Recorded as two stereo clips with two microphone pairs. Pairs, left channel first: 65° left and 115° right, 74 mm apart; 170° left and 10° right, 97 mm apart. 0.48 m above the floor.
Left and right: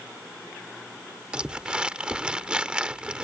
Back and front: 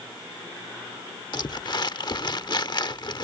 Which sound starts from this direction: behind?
Crumpling, at 1.3 s.